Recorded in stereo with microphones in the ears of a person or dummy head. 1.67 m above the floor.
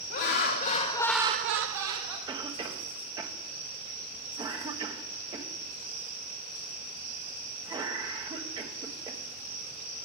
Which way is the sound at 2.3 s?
15° right (ahead or behind).